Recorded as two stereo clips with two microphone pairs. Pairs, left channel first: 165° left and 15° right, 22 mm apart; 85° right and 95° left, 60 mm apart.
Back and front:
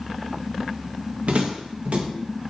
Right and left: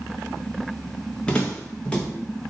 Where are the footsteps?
15° right, 1.2 m.